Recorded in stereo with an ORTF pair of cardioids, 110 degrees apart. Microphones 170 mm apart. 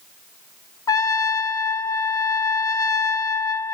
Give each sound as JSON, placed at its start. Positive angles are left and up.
{"t": 0.9, "sound": "a trumpet", "azimuth_deg": 20, "distance_m": 1.0}